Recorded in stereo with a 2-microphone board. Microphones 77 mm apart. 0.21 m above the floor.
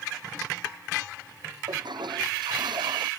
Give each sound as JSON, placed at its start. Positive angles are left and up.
{"t": 1.7, "sound": "a toilet flushing", "side_deg": -85}